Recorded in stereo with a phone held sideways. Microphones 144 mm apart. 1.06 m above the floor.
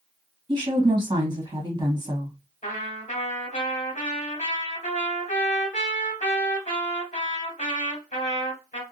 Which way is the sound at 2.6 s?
60° left (ahead or behind).